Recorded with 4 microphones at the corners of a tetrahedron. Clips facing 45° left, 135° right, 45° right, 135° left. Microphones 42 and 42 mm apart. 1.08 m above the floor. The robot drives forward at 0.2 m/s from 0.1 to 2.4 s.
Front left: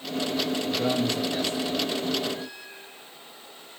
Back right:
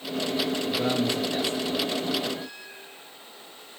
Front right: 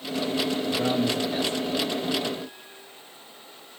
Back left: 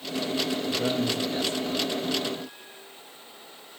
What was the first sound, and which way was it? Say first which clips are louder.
A man speaking: even, front right 2 dB; 75° right.